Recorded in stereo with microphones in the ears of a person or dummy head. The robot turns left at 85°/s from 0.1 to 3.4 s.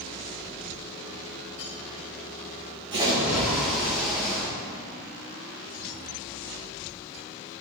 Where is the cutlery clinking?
25° left (ahead or behind), 1.1 m.